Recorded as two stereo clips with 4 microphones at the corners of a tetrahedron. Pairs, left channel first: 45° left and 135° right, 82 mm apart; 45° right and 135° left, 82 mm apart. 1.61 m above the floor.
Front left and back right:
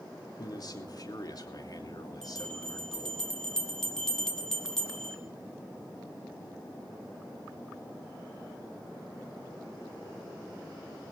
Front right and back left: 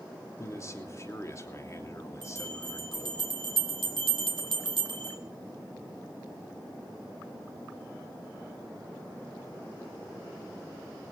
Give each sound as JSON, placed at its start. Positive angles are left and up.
{"t": 0.4, "sound": "a man speaking", "azimuth_deg": 10, "distance_m": 3.0}
{"t": 2.2, "sound": "a bell", "azimuth_deg": 130, "distance_m": 2.5}